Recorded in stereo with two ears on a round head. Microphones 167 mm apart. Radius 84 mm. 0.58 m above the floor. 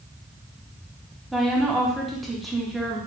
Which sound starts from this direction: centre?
A woman speaking, at 1.3 s.